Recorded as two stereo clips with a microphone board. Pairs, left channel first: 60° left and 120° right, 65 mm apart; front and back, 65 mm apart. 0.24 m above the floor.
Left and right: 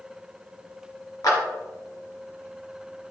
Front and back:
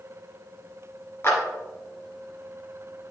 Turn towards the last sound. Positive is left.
turn(degrees=45)